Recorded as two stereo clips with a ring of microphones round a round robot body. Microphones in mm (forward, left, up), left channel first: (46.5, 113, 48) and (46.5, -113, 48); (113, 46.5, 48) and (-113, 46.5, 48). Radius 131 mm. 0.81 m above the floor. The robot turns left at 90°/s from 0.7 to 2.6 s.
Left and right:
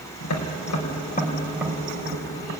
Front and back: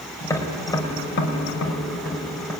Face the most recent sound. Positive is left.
turn(degrees=-95)